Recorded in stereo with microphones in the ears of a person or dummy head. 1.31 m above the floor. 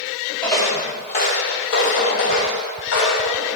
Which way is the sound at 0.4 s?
10° left (ahead or behind).